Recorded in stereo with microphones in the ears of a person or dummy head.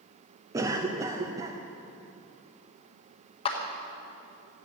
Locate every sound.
0.5 s a cough: 20° right (ahead or behind), 0.8 m
3.5 s a clap: 30° left (ahead or behind), 1.5 m